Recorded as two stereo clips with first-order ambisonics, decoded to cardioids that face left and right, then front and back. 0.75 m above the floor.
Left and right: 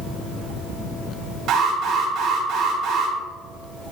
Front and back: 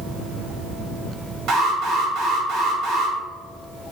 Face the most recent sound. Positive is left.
turn(degrees=-140)